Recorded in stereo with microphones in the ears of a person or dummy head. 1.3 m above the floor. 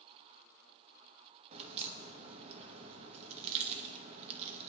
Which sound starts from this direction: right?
A crack, at 1.5 s.